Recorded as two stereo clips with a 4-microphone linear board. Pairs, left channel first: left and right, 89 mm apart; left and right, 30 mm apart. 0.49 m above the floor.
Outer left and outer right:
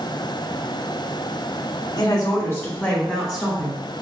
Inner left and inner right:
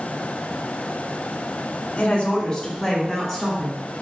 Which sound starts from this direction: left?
A woman speaking, at 2.0 s.